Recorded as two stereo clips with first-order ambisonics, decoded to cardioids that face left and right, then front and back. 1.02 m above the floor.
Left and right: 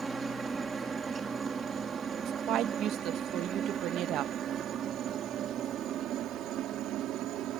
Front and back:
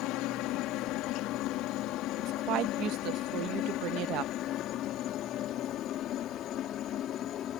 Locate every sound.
0.0 s a helicopter: 15° right; by 7.6 s 50° right
2.2 s a woman speaking: 135° right